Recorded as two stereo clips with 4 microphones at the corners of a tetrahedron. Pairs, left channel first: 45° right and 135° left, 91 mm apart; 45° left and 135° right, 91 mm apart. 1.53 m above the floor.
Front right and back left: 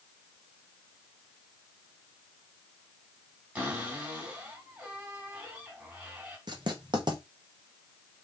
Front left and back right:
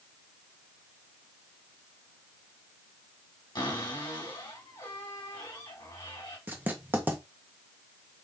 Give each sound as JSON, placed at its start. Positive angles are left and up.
{"t": 3.5, "sound": "a cupboard door", "azimuth_deg": 65, "distance_m": 2.0}
{"t": 6.5, "sound": "writing", "azimuth_deg": 160, "distance_m": 0.9}